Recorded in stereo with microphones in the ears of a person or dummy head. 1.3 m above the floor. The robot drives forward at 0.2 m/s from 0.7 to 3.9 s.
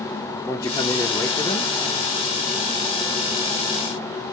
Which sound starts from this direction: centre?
A man speaking, at 0.5 s.